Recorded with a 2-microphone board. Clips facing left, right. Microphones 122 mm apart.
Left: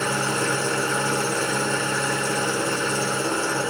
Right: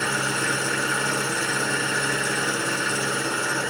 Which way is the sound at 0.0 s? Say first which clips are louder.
Left 2 dB; 35° left (ahead or behind).